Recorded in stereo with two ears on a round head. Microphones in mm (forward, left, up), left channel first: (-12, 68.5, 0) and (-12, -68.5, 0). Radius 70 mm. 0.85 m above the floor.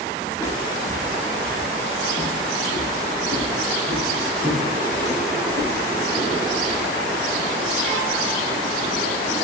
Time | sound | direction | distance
0.3 | footsteps | 20° left (ahead or behind) | 1.0 m